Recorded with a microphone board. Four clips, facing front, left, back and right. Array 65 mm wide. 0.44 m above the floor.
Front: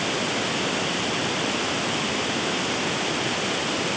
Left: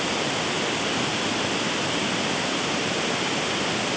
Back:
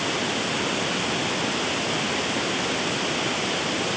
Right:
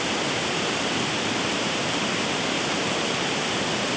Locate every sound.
Only background noise.